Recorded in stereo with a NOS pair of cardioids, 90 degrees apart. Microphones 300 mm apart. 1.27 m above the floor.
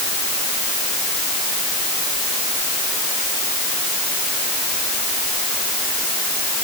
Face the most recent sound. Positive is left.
No sound to turn to.